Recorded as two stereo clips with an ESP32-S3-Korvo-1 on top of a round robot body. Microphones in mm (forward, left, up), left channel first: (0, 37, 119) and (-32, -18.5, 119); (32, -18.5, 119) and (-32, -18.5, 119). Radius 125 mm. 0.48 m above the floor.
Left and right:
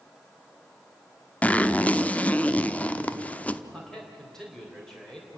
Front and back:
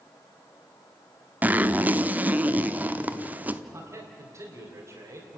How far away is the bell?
I don't hear a bell.